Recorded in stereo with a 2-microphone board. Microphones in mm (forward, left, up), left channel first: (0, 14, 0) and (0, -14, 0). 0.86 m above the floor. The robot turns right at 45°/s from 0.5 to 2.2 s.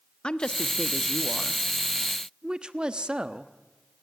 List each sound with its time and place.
0.2 s a woman speaking: 140° left, 1.1 m; by 3.5 s 145° right, 1.1 m